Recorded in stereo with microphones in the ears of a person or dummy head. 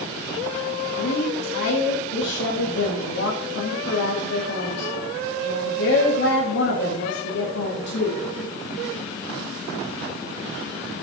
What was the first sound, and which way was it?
A woman speaking, 70° left (ahead or behind).